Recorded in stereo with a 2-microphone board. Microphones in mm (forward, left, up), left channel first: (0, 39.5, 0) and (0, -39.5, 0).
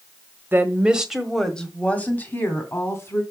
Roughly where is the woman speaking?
Right.